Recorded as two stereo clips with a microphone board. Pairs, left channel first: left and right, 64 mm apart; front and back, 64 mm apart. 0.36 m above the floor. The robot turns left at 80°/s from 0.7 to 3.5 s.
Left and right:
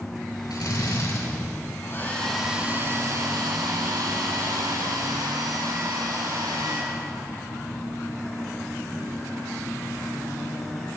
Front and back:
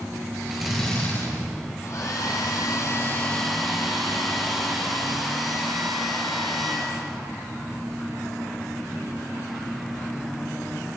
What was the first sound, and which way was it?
A drill, 90° left.